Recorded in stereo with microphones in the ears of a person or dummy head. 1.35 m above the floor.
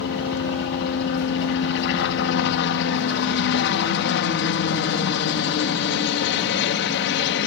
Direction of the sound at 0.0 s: 60° left (ahead or behind).